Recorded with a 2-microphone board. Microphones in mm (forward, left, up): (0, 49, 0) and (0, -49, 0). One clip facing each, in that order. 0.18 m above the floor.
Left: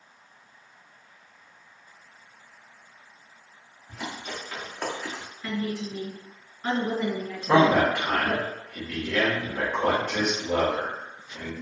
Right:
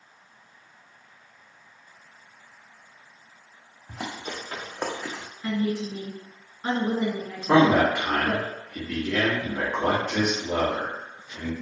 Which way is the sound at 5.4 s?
15° right (ahead or behind).